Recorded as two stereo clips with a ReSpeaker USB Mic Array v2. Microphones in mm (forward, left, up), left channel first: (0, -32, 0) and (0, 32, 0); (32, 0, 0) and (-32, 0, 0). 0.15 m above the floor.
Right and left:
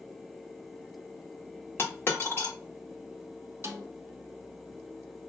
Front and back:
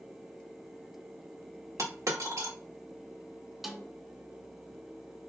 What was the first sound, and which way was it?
A dropped coin, 145° right.